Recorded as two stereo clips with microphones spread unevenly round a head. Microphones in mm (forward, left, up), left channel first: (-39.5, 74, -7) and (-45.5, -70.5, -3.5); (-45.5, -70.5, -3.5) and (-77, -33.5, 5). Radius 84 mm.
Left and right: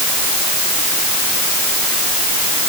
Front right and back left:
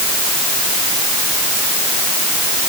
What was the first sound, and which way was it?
Only background noise.